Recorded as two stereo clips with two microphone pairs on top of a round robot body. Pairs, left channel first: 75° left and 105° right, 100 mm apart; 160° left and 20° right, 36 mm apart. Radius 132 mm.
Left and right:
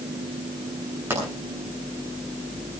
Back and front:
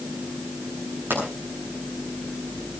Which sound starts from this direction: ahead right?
A pop, at 1.1 s.